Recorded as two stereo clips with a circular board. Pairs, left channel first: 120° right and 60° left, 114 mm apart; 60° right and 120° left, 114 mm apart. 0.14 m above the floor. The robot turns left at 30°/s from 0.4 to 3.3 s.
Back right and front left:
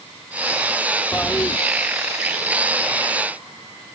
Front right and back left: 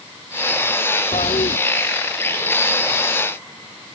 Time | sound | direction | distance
1.1 | a toilet flushing | 40° right | ?